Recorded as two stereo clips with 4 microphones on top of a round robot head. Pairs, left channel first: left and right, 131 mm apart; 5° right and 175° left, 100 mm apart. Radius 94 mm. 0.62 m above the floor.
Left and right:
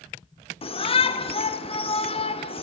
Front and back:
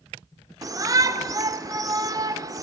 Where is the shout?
130° left, 2 m.